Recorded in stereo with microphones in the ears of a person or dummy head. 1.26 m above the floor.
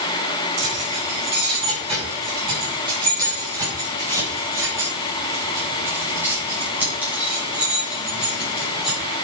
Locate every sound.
0.6 s keys jangling: 35° right (ahead or behind), 6.5 m; by 9.0 s 5° right (ahead or behind), 9.5 m